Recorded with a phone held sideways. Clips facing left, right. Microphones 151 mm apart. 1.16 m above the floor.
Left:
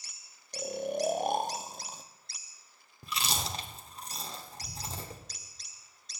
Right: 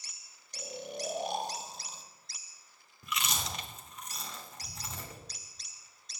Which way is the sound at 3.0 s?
35° left (ahead or behind).